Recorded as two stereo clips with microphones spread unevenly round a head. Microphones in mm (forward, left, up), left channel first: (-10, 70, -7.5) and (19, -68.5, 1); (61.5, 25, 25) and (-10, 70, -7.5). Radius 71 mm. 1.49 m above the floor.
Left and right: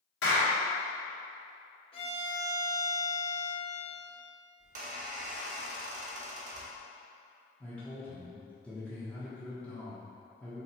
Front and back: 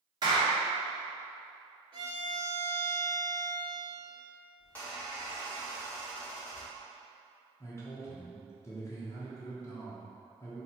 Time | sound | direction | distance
0.2 | a clap | 105° left | 1.5 m
1.9 | a violin | 135° left | 0.9 m
4.6 | a squeak | 90° right | 0.8 m
7.6 | a man speaking | 20° left | 0.9 m